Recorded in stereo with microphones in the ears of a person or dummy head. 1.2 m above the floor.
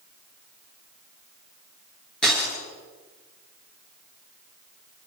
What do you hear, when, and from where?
2.2 s breaking glass: 5° left (ahead or behind), 8.5 m